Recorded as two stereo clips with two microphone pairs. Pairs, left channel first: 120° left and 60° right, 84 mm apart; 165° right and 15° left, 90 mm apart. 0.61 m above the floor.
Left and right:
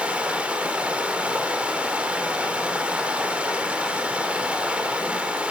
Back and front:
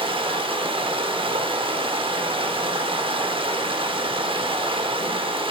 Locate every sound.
0.0 s running water: 15° left, 0.8 m